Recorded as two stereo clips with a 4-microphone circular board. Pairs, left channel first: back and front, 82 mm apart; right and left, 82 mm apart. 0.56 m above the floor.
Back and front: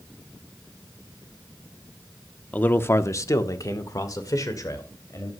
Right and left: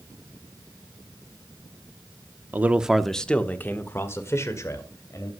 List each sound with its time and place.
2.5 s a man speaking: 130° left, 0.8 m; by 5.3 s 135° right, 2.5 m